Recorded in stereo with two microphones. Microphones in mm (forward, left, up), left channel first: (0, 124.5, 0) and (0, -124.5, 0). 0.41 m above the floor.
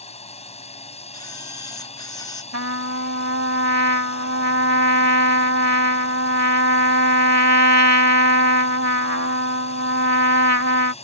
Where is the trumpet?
80° right.